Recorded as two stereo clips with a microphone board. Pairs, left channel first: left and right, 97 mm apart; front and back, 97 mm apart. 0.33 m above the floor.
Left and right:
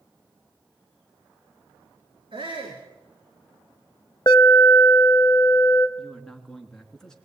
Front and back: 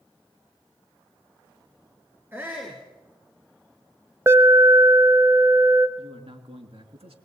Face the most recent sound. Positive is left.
turn(degrees=175)